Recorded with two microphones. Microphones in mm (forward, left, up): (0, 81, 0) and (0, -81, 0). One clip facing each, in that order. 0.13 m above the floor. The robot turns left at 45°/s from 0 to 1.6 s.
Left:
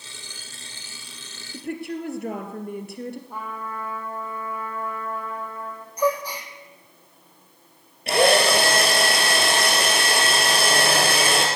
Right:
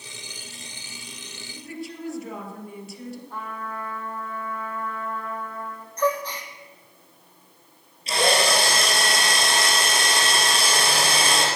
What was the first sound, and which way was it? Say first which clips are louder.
A woman speaking: left 6 dB; 60° left (ahead or behind).